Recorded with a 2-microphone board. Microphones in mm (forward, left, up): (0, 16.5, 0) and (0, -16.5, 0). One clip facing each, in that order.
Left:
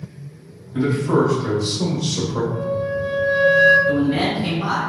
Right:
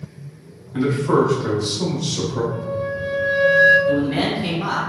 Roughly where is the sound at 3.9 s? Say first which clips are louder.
Left 1 dB; centre.